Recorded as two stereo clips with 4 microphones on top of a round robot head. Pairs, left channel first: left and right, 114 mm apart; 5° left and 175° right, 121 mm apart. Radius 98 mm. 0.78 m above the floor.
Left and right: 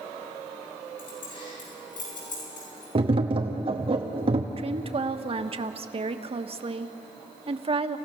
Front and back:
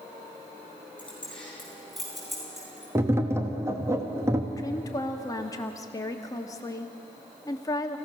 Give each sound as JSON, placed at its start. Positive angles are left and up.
{"t": 1.0, "sound": "keys jangling", "azimuth_deg": 85, "distance_m": 9.0}
{"t": 3.0, "sound": "tapping", "azimuth_deg": -110, "distance_m": 1.3}
{"t": 4.6, "sound": "a woman speaking", "azimuth_deg": -60, "distance_m": 1.2}